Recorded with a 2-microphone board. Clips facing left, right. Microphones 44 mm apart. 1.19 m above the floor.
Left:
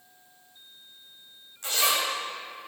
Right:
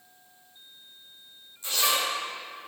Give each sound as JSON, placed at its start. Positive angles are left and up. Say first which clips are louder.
{"t": 1.6, "sound": "a zipper", "louder": "left 1 dB", "side_deg": 85, "distance_m": 4.0}